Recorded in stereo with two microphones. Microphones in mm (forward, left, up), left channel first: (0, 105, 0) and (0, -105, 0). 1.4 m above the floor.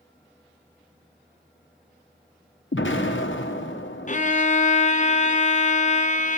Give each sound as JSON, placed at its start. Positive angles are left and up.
{"t": 2.7, "sound": "an explosion", "side_deg": 65, "distance_m": 1.0}
{"t": 4.1, "sound": "a violin", "side_deg": 35, "distance_m": 0.5}